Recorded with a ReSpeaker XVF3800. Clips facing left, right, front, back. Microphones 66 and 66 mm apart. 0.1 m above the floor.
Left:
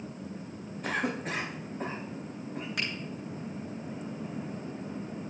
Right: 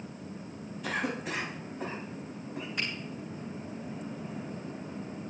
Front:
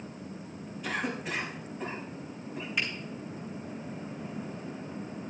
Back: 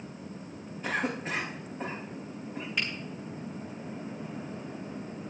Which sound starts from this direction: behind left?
A cough, at 0.8 s.